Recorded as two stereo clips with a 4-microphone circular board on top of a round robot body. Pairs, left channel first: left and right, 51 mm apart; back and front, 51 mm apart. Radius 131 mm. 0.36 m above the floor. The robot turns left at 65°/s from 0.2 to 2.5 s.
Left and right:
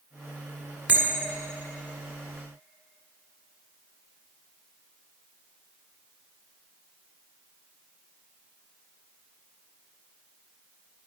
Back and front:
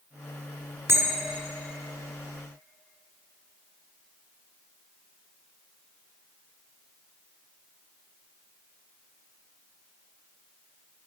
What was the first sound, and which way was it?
A bell, 30° right.